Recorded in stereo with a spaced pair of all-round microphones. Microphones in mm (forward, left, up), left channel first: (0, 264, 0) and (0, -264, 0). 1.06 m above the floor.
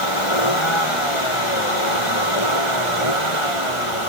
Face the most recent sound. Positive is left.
turn(degrees=65)  # may be behind; listen again after turning